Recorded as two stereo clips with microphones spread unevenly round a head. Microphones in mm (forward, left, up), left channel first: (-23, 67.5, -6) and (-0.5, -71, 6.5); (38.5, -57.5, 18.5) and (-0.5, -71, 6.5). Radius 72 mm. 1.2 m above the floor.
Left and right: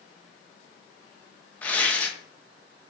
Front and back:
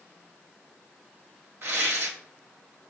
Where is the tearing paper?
Straight behind, 0.5 m.